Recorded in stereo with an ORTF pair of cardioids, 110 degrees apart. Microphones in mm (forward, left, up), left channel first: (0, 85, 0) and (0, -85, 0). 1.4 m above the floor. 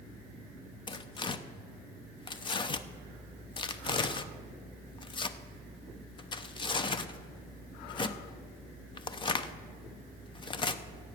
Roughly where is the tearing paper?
Ahead left.